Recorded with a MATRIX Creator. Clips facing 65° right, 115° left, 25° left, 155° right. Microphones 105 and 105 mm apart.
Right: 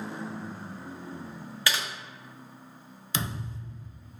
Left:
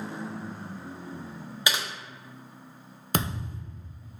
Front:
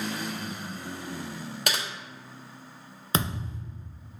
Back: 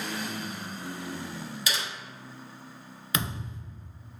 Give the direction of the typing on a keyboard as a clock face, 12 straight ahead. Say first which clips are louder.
Left 1 dB, front 3 dB; 11 o'clock.